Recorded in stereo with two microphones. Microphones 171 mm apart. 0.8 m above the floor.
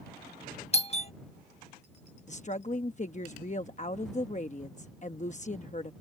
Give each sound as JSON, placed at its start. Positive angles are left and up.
{"t": 0.7, "sound": "a doorbell", "side_deg": 35}
{"t": 2.3, "sound": "a woman speaking", "side_deg": 45}